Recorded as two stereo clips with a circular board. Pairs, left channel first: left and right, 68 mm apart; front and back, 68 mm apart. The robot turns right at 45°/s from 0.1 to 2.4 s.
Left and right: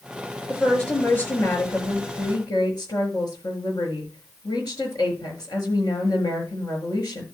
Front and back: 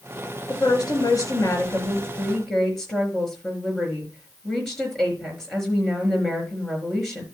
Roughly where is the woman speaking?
Ahead.